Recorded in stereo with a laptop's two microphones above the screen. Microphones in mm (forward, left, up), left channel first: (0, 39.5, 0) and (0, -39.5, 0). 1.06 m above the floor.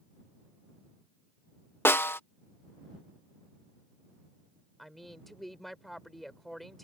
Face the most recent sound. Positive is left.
turn(degrees=5)  # may be behind; listen again after turning